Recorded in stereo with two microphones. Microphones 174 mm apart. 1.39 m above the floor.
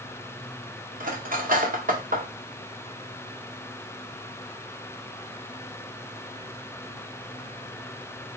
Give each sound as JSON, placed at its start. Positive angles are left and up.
{"t": 1.0, "sound": "cutlery clinking", "side_deg": -50, "distance_m": 0.9}